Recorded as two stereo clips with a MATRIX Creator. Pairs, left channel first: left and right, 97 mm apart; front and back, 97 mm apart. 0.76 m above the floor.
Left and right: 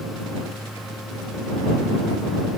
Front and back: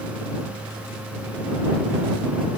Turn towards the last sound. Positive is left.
No sound to turn to.